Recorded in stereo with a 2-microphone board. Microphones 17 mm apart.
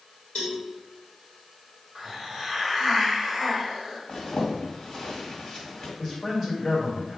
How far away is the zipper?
About 1.9 m.